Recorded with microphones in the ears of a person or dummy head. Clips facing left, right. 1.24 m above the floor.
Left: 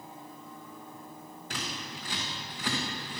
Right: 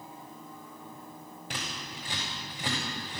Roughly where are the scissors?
Centre.